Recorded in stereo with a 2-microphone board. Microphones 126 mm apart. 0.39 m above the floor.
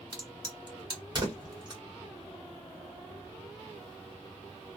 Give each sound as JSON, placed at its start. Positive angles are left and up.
{"t": 0.1, "sound": "a crack", "side_deg": -35, "distance_m": 1.3}